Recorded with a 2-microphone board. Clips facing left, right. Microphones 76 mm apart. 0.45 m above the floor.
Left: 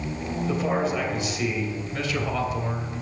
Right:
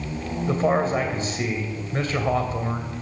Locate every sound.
0.5 s a man speaking: 40° right (ahead or behind), 2.5 m